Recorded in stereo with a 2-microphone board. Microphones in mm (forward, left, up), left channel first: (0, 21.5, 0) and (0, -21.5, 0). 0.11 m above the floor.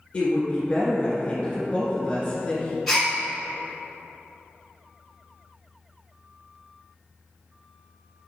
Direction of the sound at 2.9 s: 5° left (ahead or behind).